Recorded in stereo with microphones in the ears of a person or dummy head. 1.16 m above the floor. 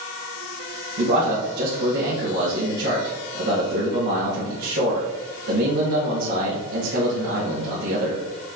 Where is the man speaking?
55° right (ahead or behind), 1.8 m.